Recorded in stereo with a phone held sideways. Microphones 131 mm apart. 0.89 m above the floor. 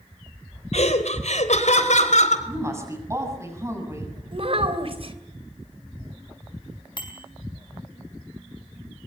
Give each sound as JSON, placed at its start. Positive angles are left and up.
{"t": 0.7, "sound": "laughter", "side_deg": 60, "distance_m": 3.5}
{"t": 2.5, "sound": "a woman speaking", "side_deg": -20, "distance_m": 7.0}
{"t": 4.3, "sound": "a child speaking", "side_deg": -50, "distance_m": 3.0}
{"t": 7.0, "sound": "a bicycle bell", "side_deg": 40, "distance_m": 4.5}